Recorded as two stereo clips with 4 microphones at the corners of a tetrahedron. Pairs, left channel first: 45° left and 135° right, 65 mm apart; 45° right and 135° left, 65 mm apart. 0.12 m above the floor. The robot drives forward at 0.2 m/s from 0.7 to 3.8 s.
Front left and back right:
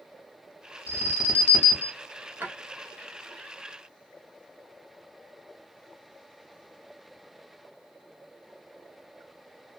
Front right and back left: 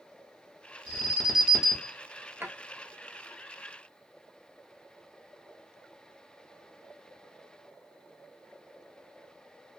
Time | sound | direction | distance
0.9 | an alarm | 55° left | 1.1 m
2.4 | a drawer | 175° left | 0.8 m